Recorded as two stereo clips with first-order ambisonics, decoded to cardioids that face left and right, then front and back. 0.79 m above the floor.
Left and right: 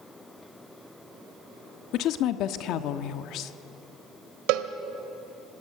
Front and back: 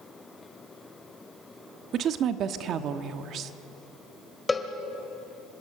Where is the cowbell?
80° right, 1.4 m.